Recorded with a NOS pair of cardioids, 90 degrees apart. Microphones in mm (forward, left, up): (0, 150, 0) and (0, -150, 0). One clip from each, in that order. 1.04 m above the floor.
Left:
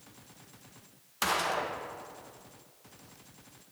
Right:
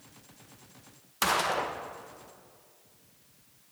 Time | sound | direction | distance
1.2 | a gunshot | 15° right | 0.5 m